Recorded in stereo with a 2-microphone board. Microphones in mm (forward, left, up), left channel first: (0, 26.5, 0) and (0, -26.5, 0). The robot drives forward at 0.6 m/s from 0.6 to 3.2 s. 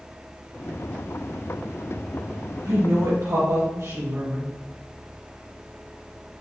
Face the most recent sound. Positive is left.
turn(degrees=-80)